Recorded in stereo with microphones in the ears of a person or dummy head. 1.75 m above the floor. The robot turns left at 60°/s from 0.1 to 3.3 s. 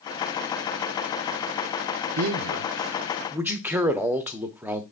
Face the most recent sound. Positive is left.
turn(degrees=-170)